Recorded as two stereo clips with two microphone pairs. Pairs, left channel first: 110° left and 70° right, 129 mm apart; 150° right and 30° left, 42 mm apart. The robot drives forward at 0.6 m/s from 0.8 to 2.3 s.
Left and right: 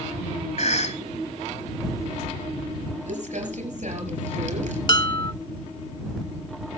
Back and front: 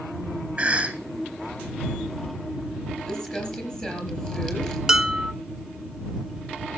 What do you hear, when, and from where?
0.6 s a cough: 95° left, 3 m
3.1 s crumpling: 75° right, 4 m
4.9 s dishes clattering: 110° left, 0.8 m